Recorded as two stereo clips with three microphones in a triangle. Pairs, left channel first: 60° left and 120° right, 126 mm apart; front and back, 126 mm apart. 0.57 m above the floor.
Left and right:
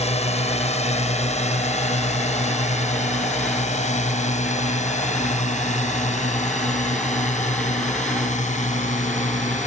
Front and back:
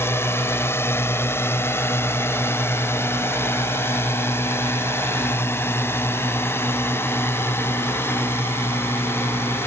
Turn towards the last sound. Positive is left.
turn(degrees=70)